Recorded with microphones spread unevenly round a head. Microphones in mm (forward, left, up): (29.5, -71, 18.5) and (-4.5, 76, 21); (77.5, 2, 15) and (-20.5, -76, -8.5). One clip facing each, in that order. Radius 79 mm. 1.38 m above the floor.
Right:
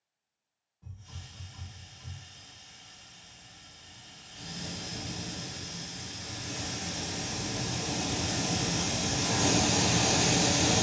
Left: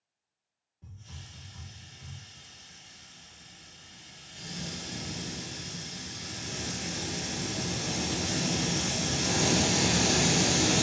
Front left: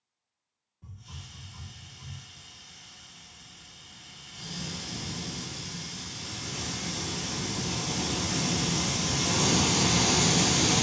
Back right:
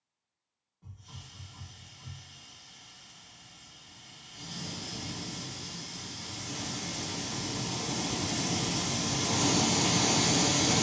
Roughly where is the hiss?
Left.